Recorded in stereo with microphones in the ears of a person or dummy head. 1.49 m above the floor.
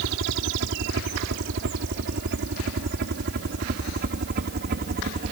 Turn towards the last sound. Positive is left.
turn(degrees=-40)  # may be behind; listen again after turning